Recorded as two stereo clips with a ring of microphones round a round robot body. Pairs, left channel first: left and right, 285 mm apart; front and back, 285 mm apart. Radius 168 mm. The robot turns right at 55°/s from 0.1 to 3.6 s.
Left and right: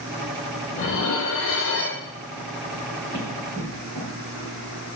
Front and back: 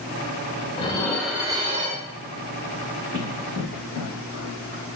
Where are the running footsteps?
70° right, 1.9 m; by 4.8 s 50° right, 1.0 m.